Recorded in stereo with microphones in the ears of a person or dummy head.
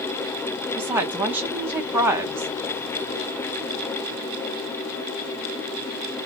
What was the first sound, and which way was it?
A woman speaking, 15° right (ahead or behind).